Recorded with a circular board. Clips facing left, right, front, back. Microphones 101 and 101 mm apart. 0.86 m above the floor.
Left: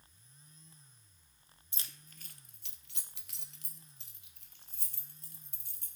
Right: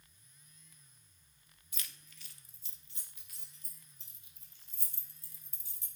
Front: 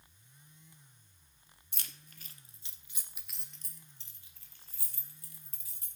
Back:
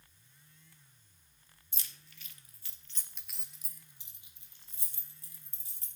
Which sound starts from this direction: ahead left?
Keys jangling, at 1.7 s.